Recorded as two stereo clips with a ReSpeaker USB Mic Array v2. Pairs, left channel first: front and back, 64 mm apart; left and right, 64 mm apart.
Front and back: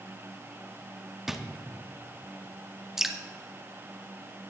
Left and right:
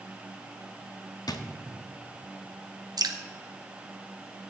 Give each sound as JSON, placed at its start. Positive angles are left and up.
{"t": 1.3, "sound": "a drawer", "azimuth_deg": 95, "distance_m": 0.9}
{"t": 3.0, "sound": "dripping", "azimuth_deg": -95, "distance_m": 0.9}